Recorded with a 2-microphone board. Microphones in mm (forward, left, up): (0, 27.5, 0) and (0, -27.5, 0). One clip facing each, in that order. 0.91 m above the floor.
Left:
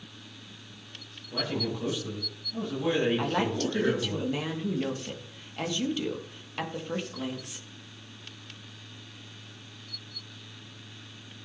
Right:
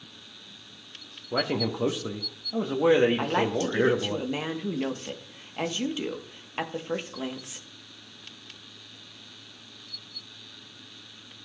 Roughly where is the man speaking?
Right.